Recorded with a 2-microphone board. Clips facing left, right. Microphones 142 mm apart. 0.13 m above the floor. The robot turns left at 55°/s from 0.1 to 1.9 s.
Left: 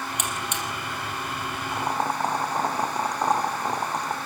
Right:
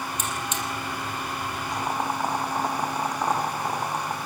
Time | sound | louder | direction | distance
0.2 | a buzzer | even | 70° left (ahead or behind) | 4 m
1.7 | boiling | left 2 dB | centre (ahead or behind) | 4 m